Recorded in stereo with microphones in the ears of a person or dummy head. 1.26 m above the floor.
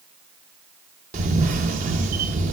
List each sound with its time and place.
1.1 s a camera shutter: 45° right (ahead or behind), 0.9 m